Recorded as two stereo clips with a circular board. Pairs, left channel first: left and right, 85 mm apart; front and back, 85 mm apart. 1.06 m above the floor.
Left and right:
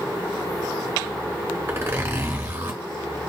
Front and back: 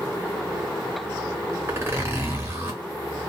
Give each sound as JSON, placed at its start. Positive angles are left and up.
{"t": 1.7, "sound": "a zipper", "azimuth_deg": -135, "distance_m": 1.0}